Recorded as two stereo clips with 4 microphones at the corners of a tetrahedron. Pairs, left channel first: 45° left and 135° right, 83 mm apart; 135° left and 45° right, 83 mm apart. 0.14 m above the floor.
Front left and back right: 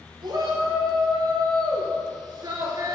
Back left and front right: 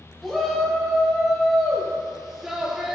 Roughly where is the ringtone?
No ringtone in this recording.